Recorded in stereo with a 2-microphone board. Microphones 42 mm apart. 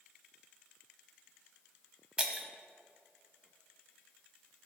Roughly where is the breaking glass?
Right.